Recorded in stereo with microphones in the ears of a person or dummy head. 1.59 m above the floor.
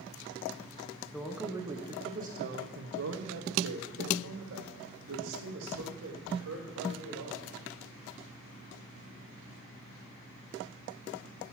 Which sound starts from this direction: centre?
A man speaking, at 1.1 s.